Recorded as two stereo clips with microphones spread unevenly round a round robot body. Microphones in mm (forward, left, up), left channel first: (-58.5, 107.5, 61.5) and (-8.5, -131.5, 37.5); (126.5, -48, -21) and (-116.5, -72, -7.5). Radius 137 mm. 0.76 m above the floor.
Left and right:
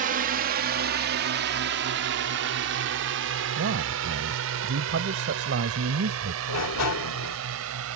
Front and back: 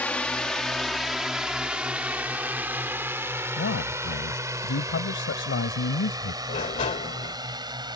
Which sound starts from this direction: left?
A sliding door, at 6.5 s.